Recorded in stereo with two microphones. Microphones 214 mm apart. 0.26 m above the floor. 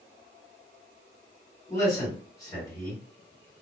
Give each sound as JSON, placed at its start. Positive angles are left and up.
{"t": 1.7, "sound": "a man speaking", "side_deg": 15, "distance_m": 1.9}